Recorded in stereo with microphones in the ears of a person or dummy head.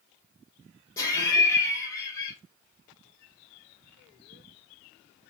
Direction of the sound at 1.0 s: 20° left (ahead or behind).